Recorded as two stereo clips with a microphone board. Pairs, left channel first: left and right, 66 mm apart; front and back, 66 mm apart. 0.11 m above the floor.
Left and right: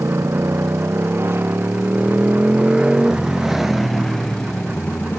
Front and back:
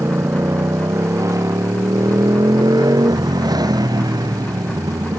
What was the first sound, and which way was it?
A motorcycle, 135° right.